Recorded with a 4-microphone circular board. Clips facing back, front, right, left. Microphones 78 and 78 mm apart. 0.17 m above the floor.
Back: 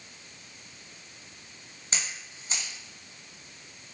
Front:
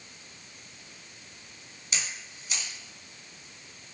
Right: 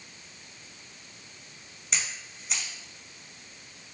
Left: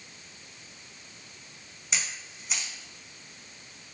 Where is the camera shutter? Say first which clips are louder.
Even, even; 175° left, 1.2 m.